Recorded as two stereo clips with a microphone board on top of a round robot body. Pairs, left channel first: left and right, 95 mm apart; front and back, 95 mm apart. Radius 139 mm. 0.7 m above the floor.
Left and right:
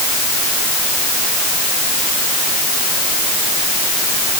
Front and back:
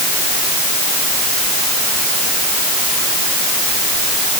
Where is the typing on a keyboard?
No typing on a keyboard in this recording.